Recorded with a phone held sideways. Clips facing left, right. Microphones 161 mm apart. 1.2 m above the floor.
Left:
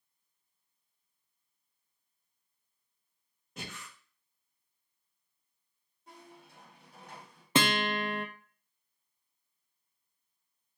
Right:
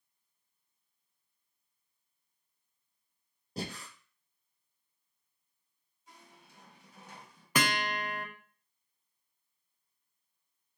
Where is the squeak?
55° left (ahead or behind), 2.5 m.